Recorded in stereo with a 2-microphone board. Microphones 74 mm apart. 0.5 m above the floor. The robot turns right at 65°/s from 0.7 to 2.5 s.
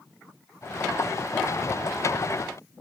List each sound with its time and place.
Only background noise.